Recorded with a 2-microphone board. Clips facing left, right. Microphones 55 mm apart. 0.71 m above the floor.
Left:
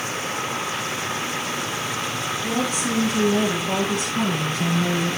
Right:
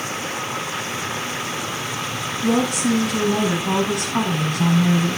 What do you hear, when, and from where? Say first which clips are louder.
2.4 s a woman speaking: right 7 dB; 70° right (ahead or behind), 6.5 m; by 5.2 s 85° right, 7 m